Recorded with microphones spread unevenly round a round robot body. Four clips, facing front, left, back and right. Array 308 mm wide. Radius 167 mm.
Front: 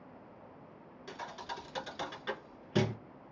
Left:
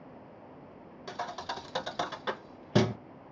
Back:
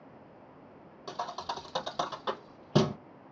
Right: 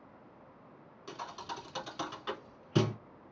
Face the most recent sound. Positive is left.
turn(degrees=135)